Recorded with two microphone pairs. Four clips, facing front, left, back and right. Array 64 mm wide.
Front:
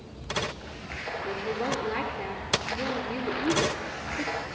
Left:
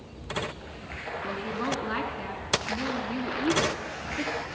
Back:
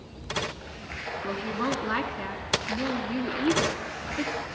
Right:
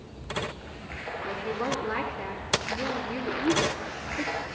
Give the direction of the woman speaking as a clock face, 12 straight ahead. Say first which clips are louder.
Right 1 dB, back 1 dB; 6 o'clock.